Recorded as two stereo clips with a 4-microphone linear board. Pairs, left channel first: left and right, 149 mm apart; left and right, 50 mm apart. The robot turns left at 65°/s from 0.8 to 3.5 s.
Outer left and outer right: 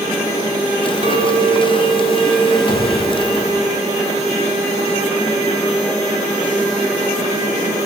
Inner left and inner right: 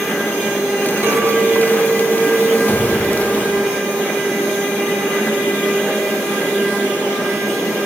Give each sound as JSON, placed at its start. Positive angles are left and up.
{"t": 1.0, "sound": "a clink", "azimuth_deg": -65, "distance_m": 0.9}
{"t": 2.7, "sound": "a gunshot", "side_deg": 45, "distance_m": 2.0}